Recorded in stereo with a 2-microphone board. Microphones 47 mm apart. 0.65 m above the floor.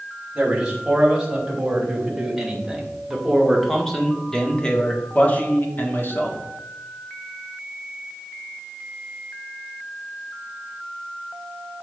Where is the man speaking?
20° right (ahead or behind), 4 m; by 6.4 s 55° left (ahead or behind), 1.8 m.